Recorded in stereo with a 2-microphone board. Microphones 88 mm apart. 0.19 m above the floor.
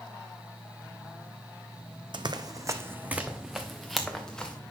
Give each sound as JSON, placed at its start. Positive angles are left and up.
{"t": 2.1, "sound": "running footsteps", "side_deg": -65, "distance_m": 0.6}